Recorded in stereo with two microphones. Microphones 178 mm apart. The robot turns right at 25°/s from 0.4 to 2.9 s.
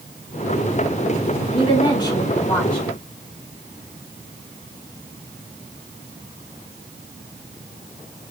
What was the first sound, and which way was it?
A woman speaking, 140° left.